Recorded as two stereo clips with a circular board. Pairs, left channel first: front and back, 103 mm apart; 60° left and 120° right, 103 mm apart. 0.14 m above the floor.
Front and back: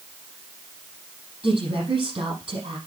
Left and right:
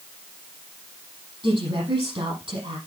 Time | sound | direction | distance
1.4 | a woman speaking | 145° right | 6 m